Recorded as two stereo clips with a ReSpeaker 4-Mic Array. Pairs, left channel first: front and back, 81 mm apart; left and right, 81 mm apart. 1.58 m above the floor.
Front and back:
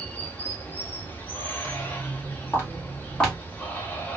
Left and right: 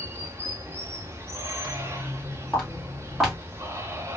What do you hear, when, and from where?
0.0 s running water: 55° right, 0.7 m
1.6 s footsteps: 15° left, 2.0 m; by 3.4 s 40° right, 1.5 m